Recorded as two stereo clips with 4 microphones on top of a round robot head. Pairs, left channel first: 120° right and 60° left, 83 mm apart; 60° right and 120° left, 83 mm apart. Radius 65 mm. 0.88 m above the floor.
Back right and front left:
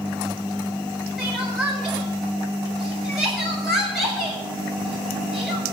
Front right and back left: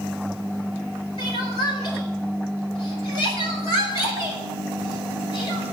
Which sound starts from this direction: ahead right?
Crying, at 1.2 s.